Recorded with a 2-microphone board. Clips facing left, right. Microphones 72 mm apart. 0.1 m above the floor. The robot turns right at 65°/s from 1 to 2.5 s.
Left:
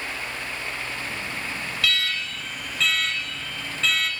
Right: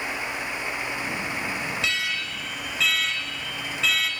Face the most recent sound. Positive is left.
turn(degrees=-10)